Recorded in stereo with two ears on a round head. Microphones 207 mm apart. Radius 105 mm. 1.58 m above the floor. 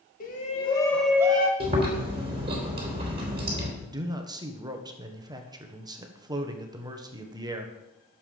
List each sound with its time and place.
0.2 s a shout: 40° left (ahead or behind), 2 m; by 1.5 s 30° right (ahead or behind), 1.5 m
1.6 s chewing: 25° right (ahead or behind), 3 m
3.8 s a man speaking: 20° right (ahead or behind), 1.3 m